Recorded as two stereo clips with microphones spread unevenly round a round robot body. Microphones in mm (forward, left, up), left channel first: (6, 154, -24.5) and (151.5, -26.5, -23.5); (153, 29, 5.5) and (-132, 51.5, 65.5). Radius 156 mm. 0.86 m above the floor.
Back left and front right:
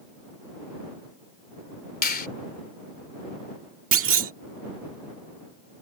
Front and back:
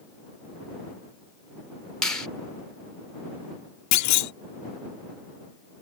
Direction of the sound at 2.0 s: 80° left.